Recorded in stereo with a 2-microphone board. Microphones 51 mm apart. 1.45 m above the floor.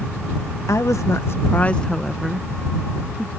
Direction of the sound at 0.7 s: 80° left.